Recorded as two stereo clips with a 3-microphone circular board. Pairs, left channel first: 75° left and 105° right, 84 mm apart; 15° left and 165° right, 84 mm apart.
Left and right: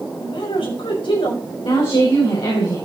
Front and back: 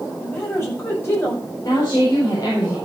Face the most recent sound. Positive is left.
turn(degrees=60)